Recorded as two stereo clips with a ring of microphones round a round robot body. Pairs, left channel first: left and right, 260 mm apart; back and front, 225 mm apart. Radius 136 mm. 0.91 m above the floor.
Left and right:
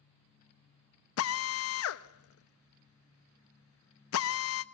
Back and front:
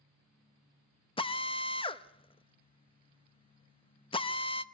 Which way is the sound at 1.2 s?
115° left.